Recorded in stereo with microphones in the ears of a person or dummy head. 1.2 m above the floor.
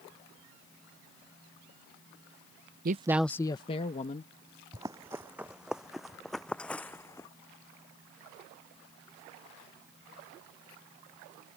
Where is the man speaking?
40° right (ahead or behind); by 4.3 s 35° left (ahead or behind).